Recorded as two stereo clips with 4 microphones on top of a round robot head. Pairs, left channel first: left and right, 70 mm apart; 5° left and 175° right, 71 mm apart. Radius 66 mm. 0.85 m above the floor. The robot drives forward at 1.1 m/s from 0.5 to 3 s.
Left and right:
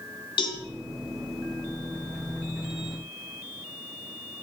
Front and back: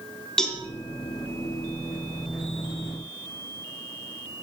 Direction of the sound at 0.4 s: 85° left.